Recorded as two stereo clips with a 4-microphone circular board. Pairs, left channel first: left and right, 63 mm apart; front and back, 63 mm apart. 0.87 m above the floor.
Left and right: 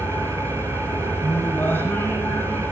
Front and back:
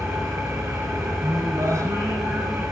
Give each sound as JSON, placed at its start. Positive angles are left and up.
{"t": 0.0, "sound": "an engine running", "azimuth_deg": -120, "distance_m": 4.5}
{"t": 1.2, "sound": "singing", "azimuth_deg": 145, "distance_m": 5.0}